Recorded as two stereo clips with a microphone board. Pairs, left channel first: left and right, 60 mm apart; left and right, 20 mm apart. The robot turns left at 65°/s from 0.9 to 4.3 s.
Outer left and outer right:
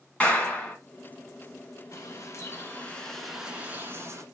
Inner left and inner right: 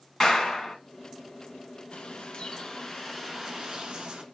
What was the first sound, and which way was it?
A clap, 20° left (ahead or behind).